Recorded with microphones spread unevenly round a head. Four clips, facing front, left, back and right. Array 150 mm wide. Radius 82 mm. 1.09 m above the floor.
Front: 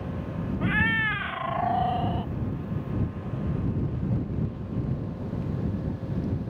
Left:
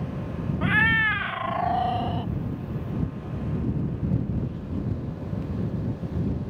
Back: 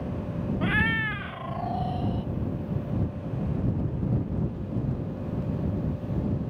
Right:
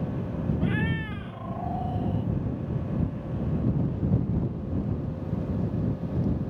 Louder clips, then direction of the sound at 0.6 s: Left 10 dB, front 1 dB; 160° left.